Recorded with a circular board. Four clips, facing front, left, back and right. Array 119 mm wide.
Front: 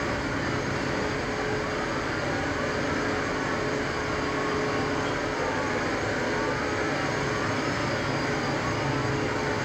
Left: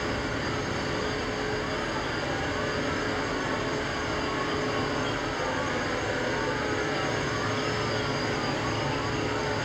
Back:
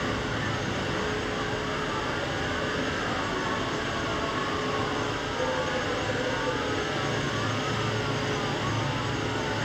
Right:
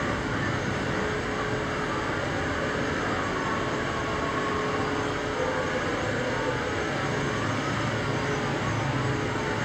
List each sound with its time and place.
0.0 s an insect: 105° right, 2.0 m